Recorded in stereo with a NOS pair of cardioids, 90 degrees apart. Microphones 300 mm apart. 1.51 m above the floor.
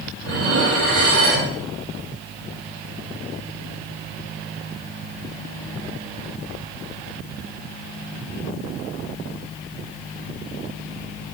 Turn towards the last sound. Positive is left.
turn(degrees=-60)